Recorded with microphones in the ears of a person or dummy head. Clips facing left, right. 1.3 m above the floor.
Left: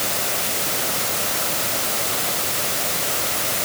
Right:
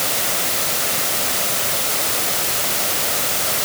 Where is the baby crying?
I don't hear a baby crying.